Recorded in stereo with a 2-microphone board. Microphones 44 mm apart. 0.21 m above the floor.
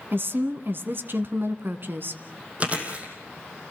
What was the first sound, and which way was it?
A woman speaking, 55° right (ahead or behind).